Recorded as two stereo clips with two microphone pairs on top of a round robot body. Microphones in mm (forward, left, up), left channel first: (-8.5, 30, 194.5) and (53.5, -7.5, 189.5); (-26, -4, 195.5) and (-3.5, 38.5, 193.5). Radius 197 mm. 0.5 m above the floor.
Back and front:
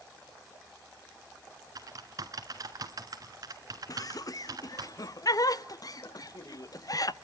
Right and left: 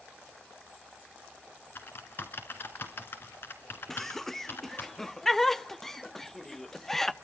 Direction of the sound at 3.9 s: 160° left.